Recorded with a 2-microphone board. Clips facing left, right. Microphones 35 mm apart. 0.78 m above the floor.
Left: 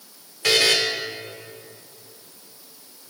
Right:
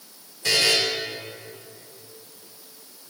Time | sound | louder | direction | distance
0.4 | a buzzer | left 2 dB | 85° left | 1.3 m